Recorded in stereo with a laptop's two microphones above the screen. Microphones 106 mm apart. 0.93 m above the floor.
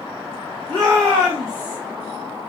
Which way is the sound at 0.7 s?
55° right (ahead or behind).